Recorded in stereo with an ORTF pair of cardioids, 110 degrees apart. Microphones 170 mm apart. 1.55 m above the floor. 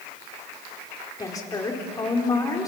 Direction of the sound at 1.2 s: 20° left.